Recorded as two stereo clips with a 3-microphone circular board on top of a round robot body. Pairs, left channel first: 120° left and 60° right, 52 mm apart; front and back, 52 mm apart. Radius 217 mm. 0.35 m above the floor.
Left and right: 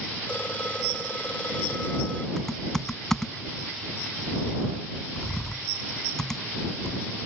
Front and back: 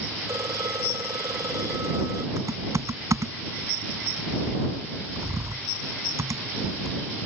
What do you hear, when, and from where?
0.3 s a phone ringing: 170° right
2.4 s typing on a keyboard: 155° right